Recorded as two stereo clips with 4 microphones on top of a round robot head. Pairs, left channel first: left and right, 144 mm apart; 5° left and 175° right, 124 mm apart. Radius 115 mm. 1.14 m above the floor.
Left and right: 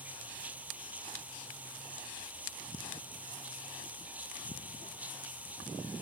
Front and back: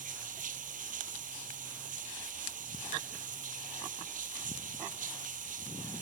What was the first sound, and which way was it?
Running water, 170° right.